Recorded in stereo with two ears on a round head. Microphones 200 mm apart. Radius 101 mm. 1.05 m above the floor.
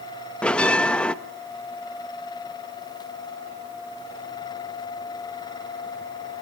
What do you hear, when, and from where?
0.4 s a bell: 5° left (ahead or behind), 0.6 m